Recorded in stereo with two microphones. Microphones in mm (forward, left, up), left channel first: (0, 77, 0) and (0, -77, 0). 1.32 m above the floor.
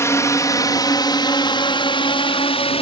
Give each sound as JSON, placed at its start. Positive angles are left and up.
{"t": 0.0, "sound": "a drone", "side_deg": 20}